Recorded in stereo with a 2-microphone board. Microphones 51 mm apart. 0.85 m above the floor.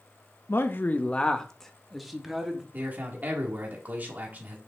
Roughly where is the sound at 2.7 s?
Right.